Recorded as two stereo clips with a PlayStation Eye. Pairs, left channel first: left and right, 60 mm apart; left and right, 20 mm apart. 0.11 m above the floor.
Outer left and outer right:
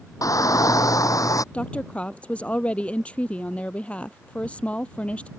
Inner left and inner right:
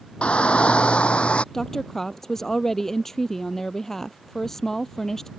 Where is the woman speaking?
20° left (ahead or behind).